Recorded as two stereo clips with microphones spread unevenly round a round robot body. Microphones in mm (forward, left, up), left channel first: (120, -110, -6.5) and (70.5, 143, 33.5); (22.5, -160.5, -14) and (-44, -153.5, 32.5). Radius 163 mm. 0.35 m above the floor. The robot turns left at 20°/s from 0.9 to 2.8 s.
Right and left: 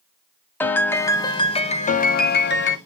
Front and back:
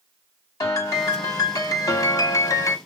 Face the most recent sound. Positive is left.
turn(degrees=-35)